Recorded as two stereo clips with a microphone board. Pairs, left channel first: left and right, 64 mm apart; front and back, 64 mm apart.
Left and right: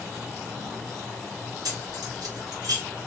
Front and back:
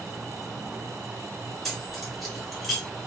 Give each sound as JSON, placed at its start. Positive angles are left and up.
{"t": 1.6, "sound": "keys jangling", "azimuth_deg": -90, "distance_m": 1.1}